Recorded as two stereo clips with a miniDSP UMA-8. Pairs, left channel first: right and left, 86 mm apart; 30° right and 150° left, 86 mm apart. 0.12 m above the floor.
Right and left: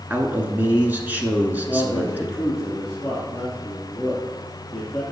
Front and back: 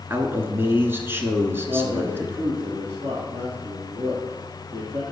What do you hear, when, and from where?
0.1 s a man speaking: 135° left, 1.2 m
1.7 s a man speaking: 175° right, 3 m